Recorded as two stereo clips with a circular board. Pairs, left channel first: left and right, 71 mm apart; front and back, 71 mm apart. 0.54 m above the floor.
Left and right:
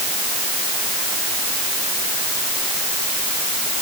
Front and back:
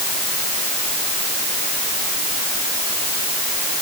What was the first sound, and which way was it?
Only background noise.